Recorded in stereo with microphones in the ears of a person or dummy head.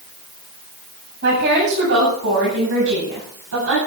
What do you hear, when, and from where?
1.2 s a woman speaking: 60° right (ahead or behind), 9 m; by 3.8 s 80° right, 9.5 m